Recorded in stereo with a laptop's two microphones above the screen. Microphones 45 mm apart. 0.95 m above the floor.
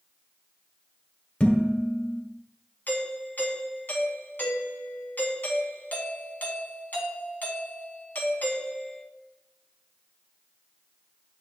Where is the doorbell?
40° left (ahead or behind), 1.5 m.